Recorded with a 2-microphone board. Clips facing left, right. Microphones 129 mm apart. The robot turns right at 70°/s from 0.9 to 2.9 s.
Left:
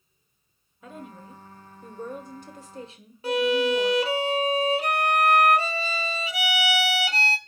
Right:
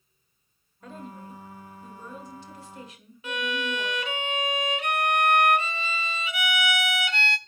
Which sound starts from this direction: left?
A violin, at 3.2 s.